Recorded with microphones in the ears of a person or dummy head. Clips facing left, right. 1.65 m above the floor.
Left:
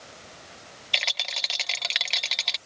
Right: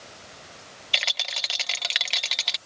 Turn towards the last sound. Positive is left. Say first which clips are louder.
# even
turn(degrees=-10)  # may be behind; listen again after turning